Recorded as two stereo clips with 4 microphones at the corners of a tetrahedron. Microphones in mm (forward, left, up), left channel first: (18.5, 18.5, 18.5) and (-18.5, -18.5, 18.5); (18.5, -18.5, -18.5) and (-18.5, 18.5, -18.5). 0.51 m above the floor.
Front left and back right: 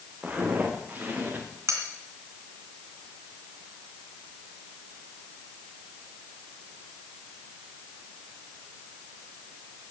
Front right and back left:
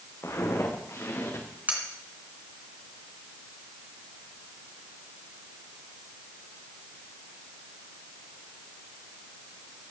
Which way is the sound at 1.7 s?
165° right.